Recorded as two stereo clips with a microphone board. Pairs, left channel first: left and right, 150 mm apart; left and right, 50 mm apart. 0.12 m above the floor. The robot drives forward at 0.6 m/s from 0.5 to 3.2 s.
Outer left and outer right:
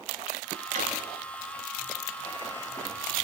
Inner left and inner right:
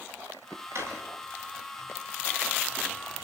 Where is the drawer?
55° right (ahead or behind), 10 m.